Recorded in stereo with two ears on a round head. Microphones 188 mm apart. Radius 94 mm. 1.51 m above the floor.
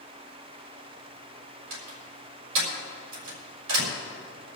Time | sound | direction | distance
1.7 | a door slam | 65° right (ahead or behind) | 6 m